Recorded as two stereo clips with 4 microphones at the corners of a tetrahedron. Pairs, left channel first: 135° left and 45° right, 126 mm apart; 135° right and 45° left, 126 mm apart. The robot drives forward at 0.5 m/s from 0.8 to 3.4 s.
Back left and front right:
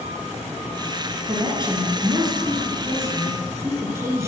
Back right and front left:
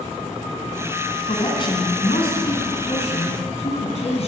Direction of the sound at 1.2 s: 85° right.